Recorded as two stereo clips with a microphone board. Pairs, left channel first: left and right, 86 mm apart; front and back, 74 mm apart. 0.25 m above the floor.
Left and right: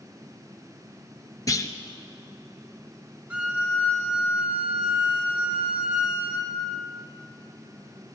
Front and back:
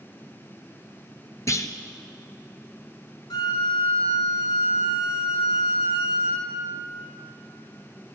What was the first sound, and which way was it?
A clunk, 45° left.